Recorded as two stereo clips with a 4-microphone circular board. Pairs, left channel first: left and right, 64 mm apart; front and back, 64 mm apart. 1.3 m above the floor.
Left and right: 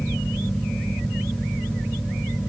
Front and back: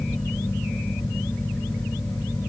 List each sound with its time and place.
Only background noise.